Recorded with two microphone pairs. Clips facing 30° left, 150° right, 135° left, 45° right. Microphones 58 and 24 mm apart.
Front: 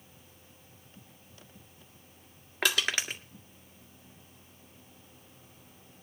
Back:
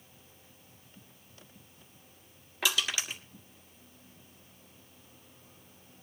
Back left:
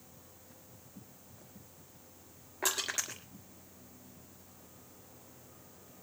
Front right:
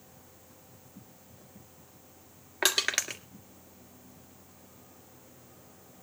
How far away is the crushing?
About 1.7 m.